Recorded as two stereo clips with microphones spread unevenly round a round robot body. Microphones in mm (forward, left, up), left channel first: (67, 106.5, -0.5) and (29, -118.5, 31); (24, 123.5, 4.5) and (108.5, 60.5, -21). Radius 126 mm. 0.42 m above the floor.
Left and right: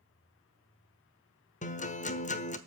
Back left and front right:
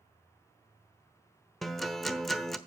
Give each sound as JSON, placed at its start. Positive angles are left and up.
{"t": 1.6, "sound": "a guitar", "azimuth_deg": 45, "distance_m": 1.1}